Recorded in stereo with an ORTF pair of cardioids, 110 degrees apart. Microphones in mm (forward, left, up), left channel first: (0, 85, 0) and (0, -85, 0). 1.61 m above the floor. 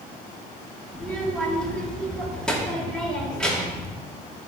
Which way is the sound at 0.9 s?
5° left.